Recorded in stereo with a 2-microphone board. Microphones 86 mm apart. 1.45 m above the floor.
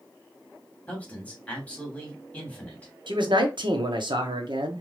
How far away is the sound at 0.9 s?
About 2.5 m.